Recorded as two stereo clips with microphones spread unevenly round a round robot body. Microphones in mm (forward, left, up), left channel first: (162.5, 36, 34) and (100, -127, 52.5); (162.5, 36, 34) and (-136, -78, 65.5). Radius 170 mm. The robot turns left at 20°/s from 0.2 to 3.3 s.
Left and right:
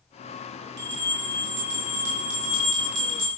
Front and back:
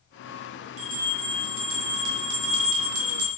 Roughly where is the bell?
Right.